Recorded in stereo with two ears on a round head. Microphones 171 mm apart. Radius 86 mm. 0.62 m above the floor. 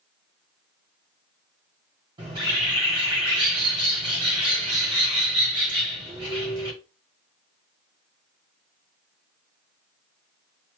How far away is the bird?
About 1.4 m.